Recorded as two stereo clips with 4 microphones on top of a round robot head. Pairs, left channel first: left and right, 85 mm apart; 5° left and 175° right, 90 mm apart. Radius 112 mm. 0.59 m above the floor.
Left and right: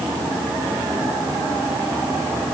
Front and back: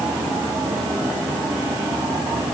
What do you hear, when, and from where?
Only background noise.